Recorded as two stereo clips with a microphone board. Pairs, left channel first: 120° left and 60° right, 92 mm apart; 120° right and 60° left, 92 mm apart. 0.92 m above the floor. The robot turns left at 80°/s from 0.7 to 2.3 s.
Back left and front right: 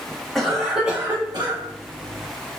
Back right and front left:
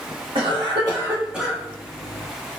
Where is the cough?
35° left, 1.4 m; by 1.6 s 40° right, 1.4 m.